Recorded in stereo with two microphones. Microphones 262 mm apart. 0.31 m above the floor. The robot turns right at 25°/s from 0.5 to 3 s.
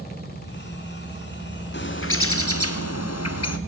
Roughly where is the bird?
Ahead left.